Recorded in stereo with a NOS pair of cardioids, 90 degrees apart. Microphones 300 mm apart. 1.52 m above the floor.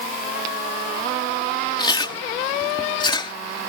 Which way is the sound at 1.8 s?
15° left.